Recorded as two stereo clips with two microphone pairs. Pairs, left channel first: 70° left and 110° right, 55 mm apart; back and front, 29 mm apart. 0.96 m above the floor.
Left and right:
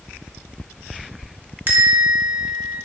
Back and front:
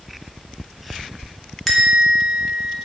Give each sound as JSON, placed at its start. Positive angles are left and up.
{"t": 1.7, "sound": "a bell", "azimuth_deg": -95, "distance_m": 0.7}